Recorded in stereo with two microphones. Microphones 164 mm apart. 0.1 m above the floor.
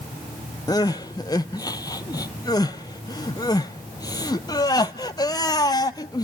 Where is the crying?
25° left (ahead or behind), 0.7 m.